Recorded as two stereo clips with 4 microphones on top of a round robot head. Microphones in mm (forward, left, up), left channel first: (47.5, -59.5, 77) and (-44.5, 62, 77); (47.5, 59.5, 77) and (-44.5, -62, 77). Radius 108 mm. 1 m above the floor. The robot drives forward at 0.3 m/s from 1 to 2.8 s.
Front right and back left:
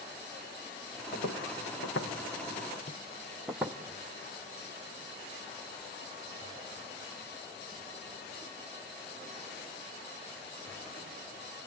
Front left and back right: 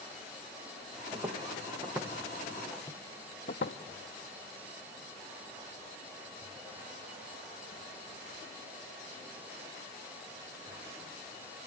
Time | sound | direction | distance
1.1 | footsteps | 65° right | 3.5 m